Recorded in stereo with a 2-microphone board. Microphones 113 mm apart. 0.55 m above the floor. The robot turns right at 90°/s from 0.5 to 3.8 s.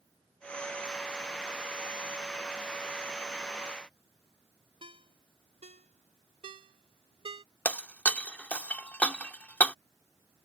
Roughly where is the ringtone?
Right.